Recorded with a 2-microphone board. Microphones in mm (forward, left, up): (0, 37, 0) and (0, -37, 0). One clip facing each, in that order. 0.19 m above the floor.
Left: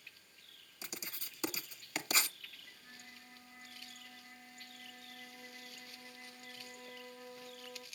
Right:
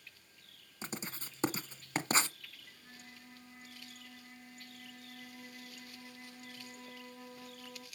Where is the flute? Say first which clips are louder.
Right 1 dB; 5° right (ahead or behind), 1.6 m.